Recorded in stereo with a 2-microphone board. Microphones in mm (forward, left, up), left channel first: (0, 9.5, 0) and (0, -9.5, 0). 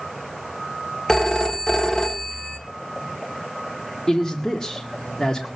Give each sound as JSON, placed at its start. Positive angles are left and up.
{"t": 1.1, "sound": "a phone ringing", "side_deg": 30, "distance_m": 1.4}
{"t": 4.1, "sound": "a man speaking", "side_deg": 25, "distance_m": 1.9}